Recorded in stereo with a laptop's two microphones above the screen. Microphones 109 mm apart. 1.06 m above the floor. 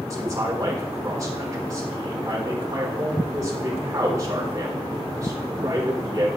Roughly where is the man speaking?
Right.